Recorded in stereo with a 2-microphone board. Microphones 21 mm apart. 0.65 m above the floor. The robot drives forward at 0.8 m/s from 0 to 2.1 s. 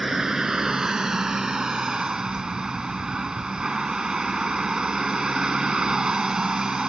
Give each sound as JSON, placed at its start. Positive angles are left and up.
{"t": 0.0, "sound": "a vehicle", "side_deg": -25}